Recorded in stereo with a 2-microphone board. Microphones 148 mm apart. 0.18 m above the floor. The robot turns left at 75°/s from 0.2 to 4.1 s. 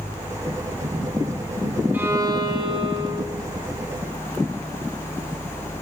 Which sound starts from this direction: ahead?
A violin, at 1.9 s.